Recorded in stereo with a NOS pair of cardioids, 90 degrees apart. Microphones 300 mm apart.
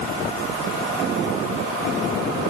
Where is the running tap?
I don't hear a running tap.